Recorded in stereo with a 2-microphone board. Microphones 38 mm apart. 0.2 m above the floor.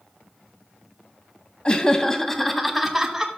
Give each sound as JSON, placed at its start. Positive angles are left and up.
{"t": 1.6, "sound": "laughter", "side_deg": 25, "distance_m": 1.1}